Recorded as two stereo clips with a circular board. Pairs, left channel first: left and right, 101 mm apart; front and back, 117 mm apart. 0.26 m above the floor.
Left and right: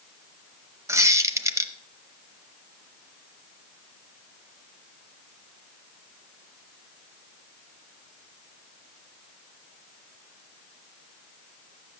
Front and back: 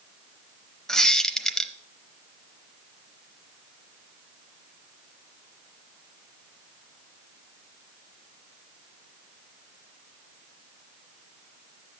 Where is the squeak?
80° right, 0.8 m.